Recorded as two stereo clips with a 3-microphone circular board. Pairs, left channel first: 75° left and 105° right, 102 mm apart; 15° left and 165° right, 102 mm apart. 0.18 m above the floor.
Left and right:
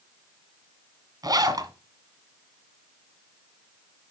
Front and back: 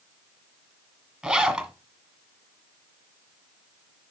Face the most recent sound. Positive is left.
turn(degrees=-90)